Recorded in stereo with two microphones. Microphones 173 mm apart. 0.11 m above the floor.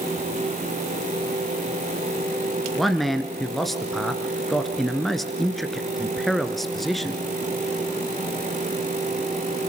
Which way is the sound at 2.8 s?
Centre (ahead or behind).